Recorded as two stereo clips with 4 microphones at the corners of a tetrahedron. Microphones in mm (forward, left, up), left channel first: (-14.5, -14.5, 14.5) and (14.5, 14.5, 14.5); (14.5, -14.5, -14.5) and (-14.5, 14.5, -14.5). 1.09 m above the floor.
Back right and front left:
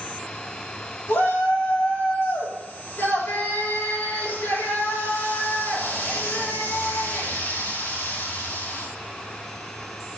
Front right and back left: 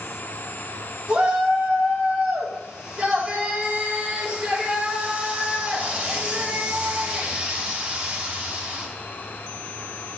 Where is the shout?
160° right, 3.5 m.